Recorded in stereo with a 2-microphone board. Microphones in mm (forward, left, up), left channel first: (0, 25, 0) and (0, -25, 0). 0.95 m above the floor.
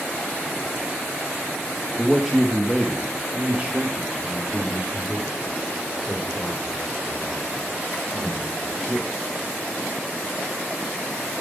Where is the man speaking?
Centre (ahead or behind), 1.8 m; by 9.2 s 45° right (ahead or behind), 6 m.